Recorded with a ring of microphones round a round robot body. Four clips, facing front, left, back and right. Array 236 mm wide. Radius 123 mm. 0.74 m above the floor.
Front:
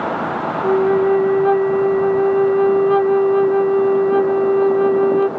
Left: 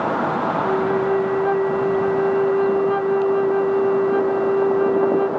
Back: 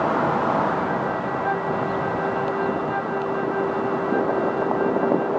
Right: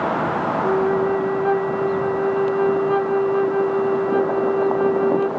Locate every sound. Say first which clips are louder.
0.6 s a flute: right 2 dB, front 9 dB; straight ahead, 0.6 m